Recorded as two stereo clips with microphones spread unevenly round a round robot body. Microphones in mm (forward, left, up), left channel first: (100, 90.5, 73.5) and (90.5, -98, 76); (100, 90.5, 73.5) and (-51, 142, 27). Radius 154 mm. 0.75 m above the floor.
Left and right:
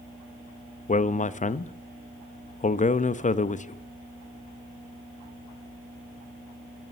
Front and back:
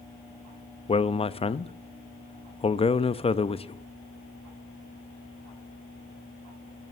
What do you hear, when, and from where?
0.9 s a man speaking: 45° left, 0.7 m